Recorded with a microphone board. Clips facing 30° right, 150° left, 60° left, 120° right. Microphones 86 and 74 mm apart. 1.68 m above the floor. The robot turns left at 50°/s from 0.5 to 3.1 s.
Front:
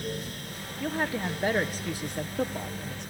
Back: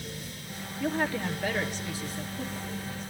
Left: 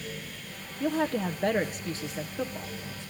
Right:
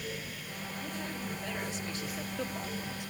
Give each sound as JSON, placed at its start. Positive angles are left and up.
{"t": 0.8, "sound": "a woman speaking", "azimuth_deg": 65, "distance_m": 1.1}